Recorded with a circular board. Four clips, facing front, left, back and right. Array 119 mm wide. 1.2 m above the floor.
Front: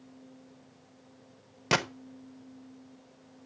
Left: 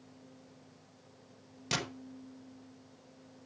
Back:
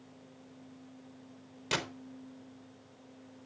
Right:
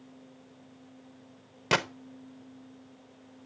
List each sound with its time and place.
1.7 s a gunshot: 45° right, 1.0 m